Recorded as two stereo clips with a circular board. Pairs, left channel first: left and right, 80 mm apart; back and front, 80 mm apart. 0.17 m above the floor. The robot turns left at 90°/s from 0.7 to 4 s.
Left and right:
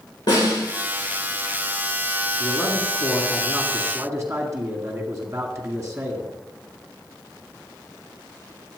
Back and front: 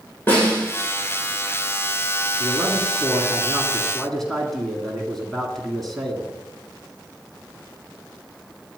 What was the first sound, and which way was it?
A snare drum, 115° left.